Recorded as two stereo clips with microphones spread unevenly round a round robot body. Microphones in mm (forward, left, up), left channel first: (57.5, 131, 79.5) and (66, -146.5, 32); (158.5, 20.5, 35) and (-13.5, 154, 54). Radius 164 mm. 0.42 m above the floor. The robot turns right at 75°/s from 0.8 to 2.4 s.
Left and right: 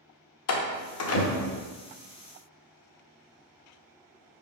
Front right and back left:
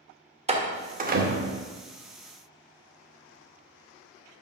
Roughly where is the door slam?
Left.